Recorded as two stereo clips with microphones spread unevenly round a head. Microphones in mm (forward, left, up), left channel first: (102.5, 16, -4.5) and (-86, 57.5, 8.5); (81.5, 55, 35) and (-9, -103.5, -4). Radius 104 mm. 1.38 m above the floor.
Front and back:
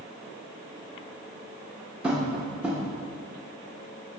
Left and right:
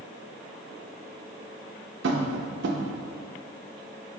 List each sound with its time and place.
2.0 s tapping: 115° right, 0.8 m